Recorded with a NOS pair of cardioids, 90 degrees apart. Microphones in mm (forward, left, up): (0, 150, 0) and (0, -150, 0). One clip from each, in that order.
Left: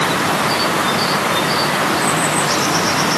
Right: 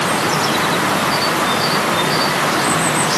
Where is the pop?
I don't hear a pop.